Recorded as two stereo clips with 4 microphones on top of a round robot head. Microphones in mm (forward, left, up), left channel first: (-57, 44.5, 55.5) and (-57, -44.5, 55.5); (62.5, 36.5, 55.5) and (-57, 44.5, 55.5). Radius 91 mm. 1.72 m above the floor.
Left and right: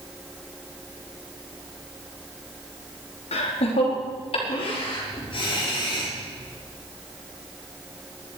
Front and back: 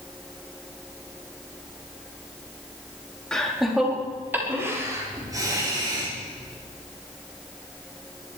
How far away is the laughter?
About 3.5 m.